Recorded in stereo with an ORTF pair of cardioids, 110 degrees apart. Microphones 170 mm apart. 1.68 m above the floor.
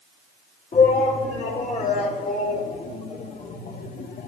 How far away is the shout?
About 4 m.